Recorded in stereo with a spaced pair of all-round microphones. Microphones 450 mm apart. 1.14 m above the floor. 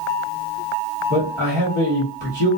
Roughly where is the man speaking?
Right.